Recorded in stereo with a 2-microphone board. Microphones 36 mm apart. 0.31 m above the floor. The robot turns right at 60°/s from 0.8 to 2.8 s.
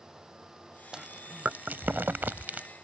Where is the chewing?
20° right (ahead or behind); by 2.7 s 40° right (ahead or behind).